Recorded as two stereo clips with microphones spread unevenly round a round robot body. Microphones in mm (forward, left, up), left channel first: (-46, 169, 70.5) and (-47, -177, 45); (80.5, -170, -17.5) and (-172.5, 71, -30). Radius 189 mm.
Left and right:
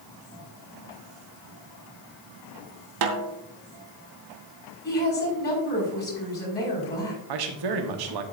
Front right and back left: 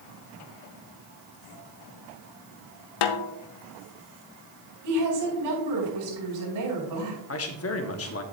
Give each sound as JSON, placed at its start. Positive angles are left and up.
{"t": 3.0, "sound": "a snare drum", "azimuth_deg": -50, "distance_m": 0.8}
{"t": 4.8, "sound": "a woman speaking", "azimuth_deg": 150, "distance_m": 5.5}
{"t": 7.3, "sound": "a man speaking", "azimuth_deg": -95, "distance_m": 1.3}